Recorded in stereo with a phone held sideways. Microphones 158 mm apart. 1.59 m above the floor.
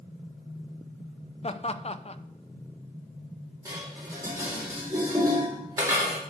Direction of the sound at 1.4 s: 40° left (ahead or behind).